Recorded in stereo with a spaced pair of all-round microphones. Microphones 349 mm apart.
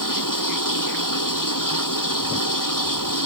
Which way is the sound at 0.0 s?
65° left (ahead or behind).